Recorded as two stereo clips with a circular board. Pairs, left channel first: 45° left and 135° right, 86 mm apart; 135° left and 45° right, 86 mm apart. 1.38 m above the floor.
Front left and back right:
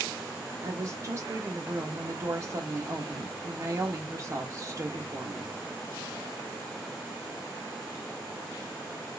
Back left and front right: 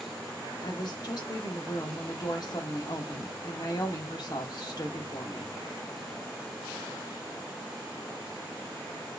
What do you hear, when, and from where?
0.6 s a woman speaking: 175° left, 1.1 m